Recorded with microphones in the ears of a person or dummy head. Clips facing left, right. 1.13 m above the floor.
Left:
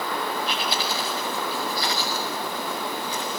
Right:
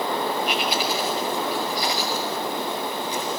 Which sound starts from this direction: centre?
Chewing, at 0.5 s.